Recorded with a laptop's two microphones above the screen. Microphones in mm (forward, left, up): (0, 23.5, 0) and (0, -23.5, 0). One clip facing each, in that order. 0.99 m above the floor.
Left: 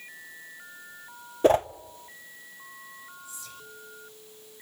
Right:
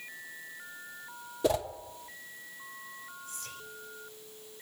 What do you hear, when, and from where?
1.4 s a whoosh: 45° left (ahead or behind), 0.7 m
3.2 s whispering: 60° right (ahead or behind), 5 m